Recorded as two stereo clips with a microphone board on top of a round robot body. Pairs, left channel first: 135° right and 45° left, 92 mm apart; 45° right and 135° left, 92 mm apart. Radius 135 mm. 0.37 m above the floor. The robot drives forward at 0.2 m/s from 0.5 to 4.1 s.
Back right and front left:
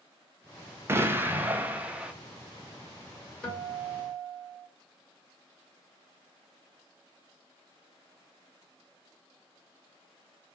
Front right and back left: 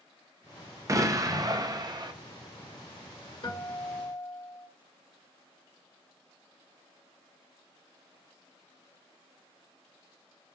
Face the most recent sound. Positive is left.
turn(degrees=-65)